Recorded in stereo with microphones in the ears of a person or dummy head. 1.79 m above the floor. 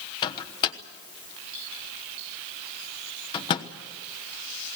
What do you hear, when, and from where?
0.2 s a microwave: 30° left (ahead or behind), 1.0 m